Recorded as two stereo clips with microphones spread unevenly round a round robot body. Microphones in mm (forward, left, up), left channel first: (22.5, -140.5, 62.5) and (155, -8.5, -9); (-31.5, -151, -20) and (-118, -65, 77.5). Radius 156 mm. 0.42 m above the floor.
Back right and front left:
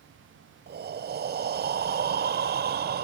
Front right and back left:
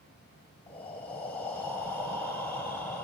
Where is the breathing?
20° left, 0.6 m.